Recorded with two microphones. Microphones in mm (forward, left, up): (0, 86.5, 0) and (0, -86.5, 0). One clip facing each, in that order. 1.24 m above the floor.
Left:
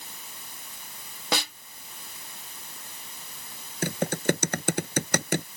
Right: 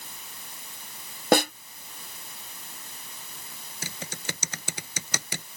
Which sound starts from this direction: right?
A snare drum, at 1.3 s.